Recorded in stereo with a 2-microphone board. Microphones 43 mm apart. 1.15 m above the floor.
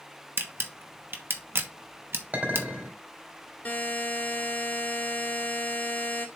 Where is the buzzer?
40° left (ahead or behind), 1.5 m.